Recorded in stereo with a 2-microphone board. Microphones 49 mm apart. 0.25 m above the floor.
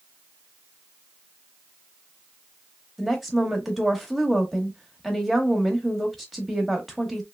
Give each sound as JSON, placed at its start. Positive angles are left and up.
{"t": 3.0, "sound": "a woman speaking", "side_deg": 0, "distance_m": 0.9}